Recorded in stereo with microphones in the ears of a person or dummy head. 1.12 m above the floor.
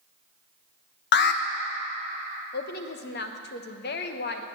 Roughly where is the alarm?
Left.